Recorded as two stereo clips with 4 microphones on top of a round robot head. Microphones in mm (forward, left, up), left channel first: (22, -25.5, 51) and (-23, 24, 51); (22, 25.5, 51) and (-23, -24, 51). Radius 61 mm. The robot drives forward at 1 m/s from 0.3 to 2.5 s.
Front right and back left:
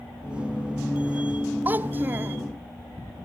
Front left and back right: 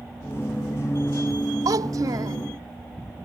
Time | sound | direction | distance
1.6 | a child speaking | 165° right | ?